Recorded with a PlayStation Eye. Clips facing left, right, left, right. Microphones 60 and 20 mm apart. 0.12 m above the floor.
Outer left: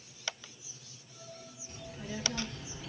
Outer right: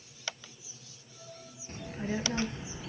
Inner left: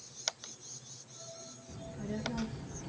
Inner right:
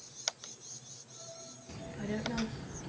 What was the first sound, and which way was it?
A child speaking, 45° right (ahead or behind).